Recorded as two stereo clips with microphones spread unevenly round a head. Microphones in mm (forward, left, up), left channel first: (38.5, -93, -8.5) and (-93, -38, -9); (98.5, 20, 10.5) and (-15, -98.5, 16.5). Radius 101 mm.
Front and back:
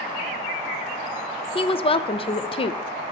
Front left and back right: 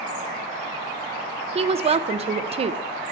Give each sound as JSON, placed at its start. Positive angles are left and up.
{"t": 1.6, "sound": "a woman speaking", "azimuth_deg": -80, "distance_m": 0.5}